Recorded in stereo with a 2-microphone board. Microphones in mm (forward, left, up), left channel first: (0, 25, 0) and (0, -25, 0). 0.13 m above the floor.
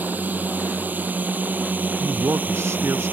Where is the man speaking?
65° right (ahead or behind).